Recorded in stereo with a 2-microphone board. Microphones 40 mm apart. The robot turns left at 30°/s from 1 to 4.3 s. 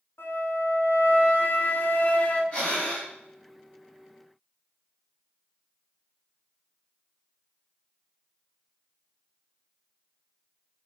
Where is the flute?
80° left, 0.7 m; by 2.4 s 40° left, 0.7 m.